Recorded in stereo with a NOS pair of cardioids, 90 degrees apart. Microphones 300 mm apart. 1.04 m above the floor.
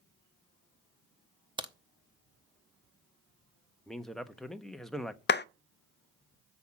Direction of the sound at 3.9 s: Straight ahead.